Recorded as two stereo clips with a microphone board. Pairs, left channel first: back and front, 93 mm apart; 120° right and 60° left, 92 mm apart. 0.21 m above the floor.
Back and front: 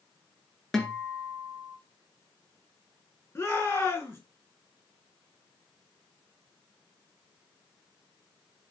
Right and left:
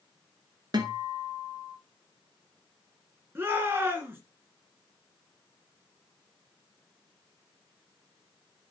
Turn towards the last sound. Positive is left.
turn(degrees=120)